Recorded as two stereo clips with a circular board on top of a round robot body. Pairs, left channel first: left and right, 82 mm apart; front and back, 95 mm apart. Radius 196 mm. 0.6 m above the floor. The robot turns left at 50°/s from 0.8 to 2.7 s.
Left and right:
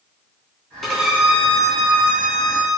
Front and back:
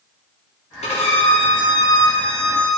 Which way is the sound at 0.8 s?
Straight ahead.